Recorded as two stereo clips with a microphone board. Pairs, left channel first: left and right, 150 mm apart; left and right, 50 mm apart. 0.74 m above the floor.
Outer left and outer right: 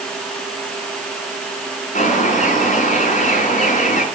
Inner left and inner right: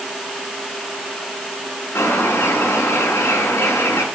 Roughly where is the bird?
Left.